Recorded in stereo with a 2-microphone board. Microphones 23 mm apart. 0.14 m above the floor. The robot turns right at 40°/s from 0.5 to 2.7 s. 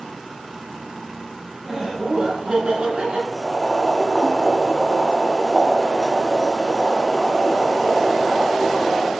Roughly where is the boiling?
Centre.